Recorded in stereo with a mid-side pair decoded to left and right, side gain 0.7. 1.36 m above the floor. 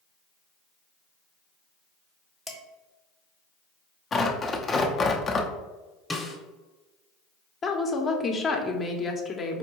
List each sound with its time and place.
2.5 s dishes clattering: 15° left, 1.2 m
4.1 s tearing paper: 30° left, 0.7 m
6.1 s a snare drum: 10° left, 1.1 m
7.6 s a woman speaking: 30° left, 0.9 m